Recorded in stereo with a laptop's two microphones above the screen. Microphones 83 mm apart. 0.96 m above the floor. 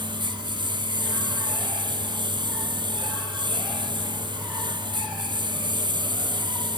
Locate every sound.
0.0 s a lawn mower: 75° right (ahead or behind)